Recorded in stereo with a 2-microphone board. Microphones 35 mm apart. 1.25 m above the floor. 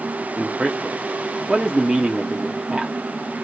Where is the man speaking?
10° right (ahead or behind), 0.7 m.